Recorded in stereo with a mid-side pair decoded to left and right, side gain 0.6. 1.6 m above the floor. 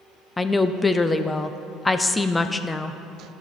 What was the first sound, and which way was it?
A woman speaking, 15° left.